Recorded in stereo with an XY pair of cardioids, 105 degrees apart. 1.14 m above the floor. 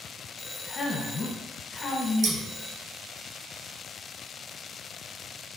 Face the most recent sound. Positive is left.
turn(degrees=-65)